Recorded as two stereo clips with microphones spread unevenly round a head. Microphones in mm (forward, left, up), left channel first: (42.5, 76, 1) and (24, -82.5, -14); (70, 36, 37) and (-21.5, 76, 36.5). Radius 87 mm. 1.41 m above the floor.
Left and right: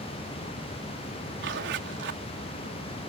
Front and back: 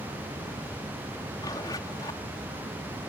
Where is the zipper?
90° right.